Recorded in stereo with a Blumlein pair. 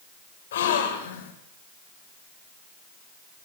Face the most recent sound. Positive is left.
turn(degrees=60)